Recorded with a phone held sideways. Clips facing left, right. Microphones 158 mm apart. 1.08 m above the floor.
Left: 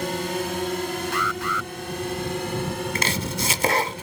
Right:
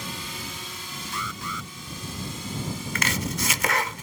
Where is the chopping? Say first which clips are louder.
Left 2 dB; 30° left (ahead or behind).